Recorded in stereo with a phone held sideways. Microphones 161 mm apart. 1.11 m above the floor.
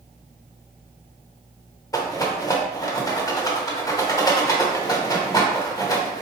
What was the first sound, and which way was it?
A rattle, 20° left (ahead or behind).